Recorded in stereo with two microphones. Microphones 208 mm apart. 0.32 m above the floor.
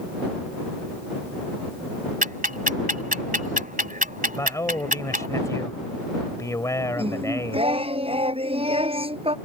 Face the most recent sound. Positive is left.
turn(degrees=-25)  # may be behind; listen again after turning